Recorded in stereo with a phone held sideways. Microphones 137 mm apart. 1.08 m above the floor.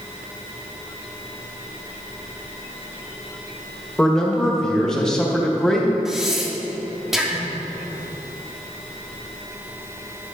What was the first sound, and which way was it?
A man speaking, 5° left (ahead or behind).